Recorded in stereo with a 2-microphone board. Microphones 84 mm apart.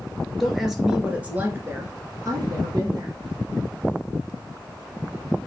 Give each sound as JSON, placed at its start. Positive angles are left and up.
{"t": 0.4, "sound": "a woman speaking", "side_deg": 0, "distance_m": 2.0}